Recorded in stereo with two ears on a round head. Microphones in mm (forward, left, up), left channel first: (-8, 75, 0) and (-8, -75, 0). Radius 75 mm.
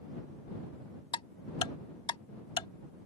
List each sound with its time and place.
1.1 s ticking: 30° left (ahead or behind)